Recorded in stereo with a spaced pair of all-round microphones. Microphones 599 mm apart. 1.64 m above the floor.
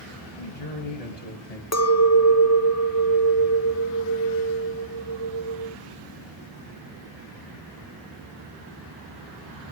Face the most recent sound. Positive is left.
turn(degrees=25)  # may be behind; listen again after turning